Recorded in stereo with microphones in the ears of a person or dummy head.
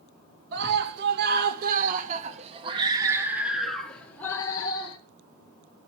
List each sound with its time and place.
0.5 s a scream: 70° right (ahead or behind), 2 m; by 5.0 s 30° left (ahead or behind), 1.6 m